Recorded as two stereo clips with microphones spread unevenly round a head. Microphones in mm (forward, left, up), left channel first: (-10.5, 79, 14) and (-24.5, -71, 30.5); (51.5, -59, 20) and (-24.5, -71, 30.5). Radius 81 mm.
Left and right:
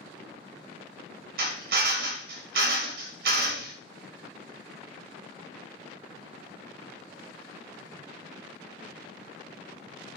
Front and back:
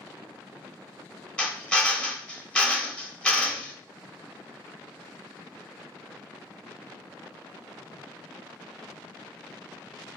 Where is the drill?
70° right, 1.0 m.